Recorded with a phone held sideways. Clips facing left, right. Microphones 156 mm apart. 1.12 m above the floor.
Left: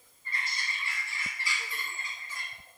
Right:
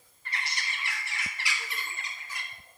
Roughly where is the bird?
Right.